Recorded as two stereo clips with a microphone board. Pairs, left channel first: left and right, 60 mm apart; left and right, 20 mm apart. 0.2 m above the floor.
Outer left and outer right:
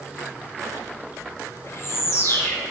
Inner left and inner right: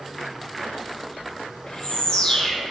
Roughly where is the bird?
Left.